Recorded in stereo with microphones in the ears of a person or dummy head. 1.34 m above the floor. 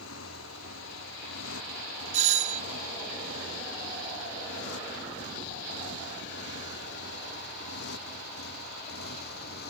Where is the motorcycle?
85° left; by 9.7 s 55° left (ahead or behind).